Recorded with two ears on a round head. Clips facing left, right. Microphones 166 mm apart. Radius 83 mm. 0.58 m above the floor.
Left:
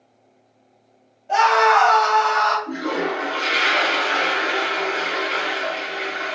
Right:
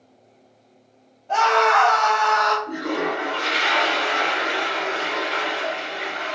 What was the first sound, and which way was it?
A scream, 10° left (ahead or behind).